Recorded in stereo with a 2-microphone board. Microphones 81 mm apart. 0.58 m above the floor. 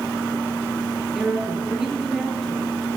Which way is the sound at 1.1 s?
5° right (ahead or behind).